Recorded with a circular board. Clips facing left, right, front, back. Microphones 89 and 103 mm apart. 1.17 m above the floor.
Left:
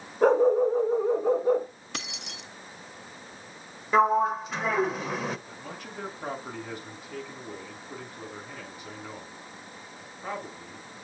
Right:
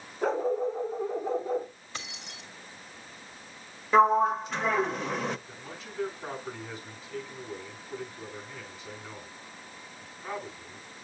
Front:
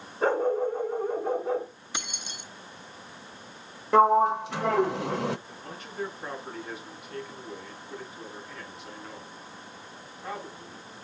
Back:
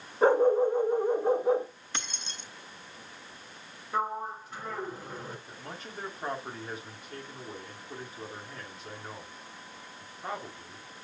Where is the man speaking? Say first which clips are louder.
Left 3 dB, front 1 dB; 120° left, 7.5 m.